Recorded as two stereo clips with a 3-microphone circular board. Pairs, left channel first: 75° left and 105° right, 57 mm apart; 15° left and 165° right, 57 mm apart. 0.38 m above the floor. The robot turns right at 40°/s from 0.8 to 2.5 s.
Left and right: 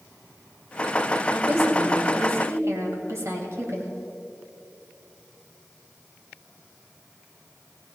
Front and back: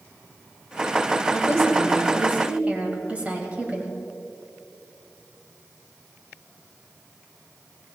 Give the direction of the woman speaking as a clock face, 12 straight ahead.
5 o'clock.